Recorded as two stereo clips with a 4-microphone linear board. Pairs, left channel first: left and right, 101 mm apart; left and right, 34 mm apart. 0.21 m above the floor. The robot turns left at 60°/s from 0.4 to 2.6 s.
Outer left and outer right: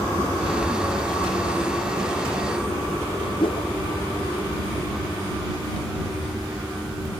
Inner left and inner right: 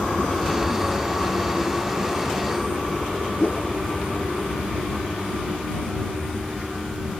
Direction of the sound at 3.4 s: 60° left (ahead or behind).